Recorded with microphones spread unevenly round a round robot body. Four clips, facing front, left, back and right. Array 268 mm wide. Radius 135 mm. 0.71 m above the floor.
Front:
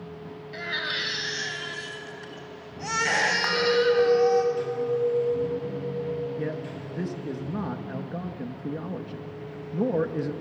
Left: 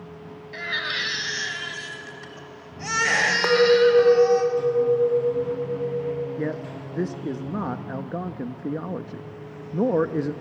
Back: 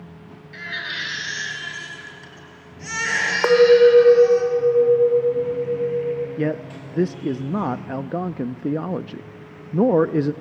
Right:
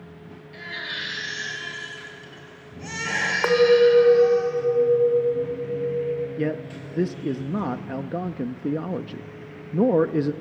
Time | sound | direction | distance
0.5 | a baby crying | 80° left | 3.5 m
3.4 | a clink | straight behind | 1.6 m
6.4 | a man speaking | 160° right | 0.5 m